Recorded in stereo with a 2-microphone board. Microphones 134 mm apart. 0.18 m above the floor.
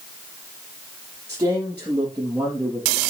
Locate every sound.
1.3 s a man speaking: 15° right (ahead or behind), 4.5 m; by 3.0 s 5° right (ahead or behind), 4 m